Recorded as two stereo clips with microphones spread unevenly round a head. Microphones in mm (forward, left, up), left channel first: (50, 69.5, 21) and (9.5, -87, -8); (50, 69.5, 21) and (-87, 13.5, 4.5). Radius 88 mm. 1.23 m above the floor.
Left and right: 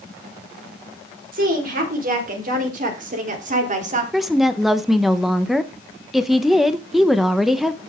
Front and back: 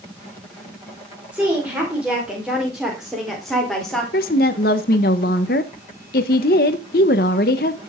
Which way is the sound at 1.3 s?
75° right.